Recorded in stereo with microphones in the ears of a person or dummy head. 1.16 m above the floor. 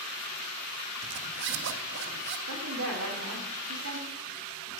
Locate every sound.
1.0 s a zipper: 55° right (ahead or behind), 0.9 m
2.5 s a woman speaking: 85° right, 3 m